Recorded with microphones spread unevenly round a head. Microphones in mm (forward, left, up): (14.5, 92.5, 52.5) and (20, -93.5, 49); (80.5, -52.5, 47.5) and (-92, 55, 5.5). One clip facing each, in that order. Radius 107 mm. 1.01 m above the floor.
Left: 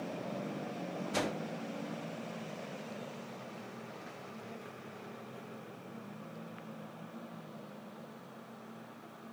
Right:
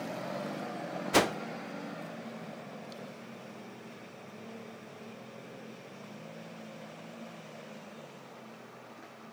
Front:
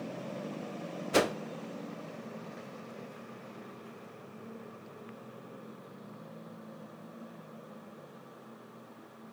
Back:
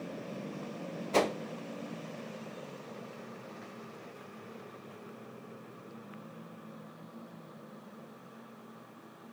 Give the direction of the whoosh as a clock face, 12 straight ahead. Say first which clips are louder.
Right 8 dB, front 1 dB; 4 o'clock.